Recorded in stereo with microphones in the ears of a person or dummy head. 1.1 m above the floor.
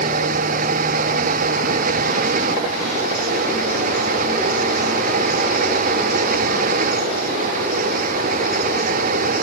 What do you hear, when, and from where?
0.0 s a fan: 45° right (ahead or behind)